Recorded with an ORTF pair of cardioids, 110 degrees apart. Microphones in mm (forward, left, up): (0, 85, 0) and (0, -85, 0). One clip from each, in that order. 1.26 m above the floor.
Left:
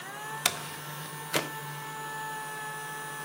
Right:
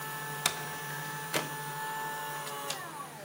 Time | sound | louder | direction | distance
0.5 | a door slam | left 2 dB | 20° left | 0.9 m